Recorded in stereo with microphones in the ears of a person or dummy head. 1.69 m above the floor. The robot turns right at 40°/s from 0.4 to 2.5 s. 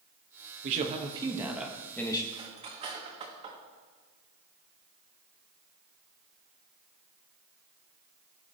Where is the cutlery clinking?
20° right (ahead or behind), 1.7 m; by 3.6 s 30° right (ahead or behind), 1.7 m.